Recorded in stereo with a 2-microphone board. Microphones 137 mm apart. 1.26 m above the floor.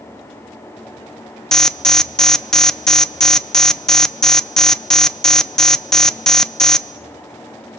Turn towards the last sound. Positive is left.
turn(degrees=5)  # may be behind; listen again after turning